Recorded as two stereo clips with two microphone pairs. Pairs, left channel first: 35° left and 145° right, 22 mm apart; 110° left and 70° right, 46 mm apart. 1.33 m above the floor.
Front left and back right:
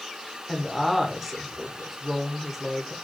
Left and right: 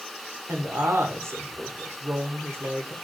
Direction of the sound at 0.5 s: 60° right.